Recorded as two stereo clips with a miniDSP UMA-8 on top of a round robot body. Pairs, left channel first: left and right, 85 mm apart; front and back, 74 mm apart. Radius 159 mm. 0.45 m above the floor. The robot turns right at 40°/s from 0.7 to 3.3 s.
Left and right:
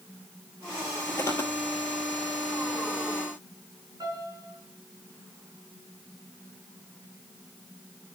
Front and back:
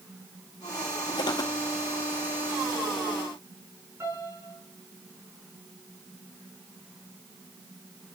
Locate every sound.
1.2 s footsteps: 25° left, 0.9 m; by 1.5 s 40° left, 0.9 m
4.0 s a piano: 130° right, 5.5 m